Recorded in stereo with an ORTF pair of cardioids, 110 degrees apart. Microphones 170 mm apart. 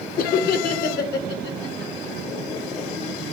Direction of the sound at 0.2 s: 55° left.